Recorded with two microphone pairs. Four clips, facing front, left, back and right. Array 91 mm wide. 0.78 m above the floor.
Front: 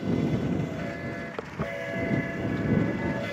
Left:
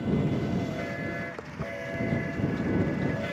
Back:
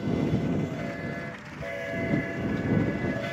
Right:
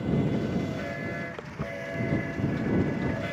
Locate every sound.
1.4 s footsteps: straight ahead; by 3.2 s 5° right